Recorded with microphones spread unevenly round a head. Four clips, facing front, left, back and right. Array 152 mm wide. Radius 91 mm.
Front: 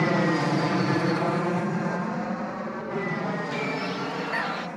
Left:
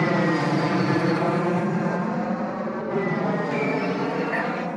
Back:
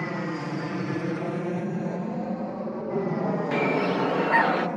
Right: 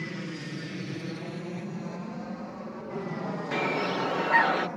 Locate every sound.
0.0 s an aircraft: 60° left; by 4.8 s 135° left
3.5 s a bird: 175° right